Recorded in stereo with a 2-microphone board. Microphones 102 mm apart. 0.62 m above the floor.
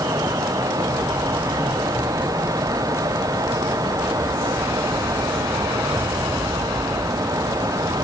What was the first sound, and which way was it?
Only background noise.